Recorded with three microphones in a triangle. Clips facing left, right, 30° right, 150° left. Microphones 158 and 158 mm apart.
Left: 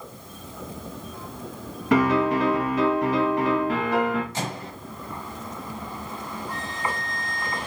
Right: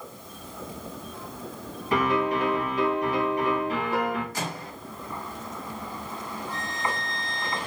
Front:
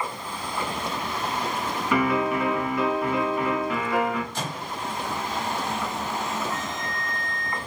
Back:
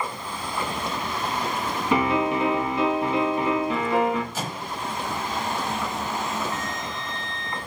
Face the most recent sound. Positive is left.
turn(degrees=90)